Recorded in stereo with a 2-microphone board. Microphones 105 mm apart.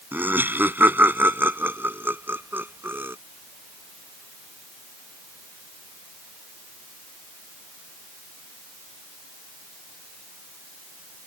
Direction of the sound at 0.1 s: 15° right (ahead or behind).